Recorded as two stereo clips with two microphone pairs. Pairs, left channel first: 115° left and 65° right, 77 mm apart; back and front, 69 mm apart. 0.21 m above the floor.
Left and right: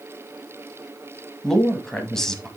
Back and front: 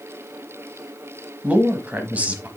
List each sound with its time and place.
1.4 s a man speaking: 40° left, 1.2 m